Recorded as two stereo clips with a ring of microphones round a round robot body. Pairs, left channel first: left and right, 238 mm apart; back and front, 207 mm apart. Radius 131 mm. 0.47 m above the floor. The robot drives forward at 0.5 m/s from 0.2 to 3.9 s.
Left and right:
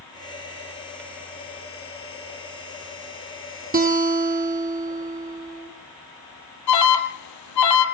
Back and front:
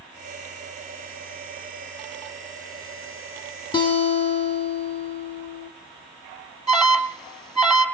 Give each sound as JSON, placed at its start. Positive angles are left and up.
{"t": 3.7, "sound": "a guitar", "azimuth_deg": -120, "distance_m": 1.7}
{"t": 6.7, "sound": "an alarm", "azimuth_deg": 90, "distance_m": 2.5}